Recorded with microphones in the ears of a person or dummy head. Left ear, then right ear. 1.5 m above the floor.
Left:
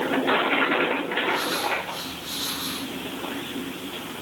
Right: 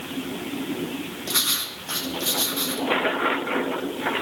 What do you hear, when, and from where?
1.3 s writing: 85° right, 2 m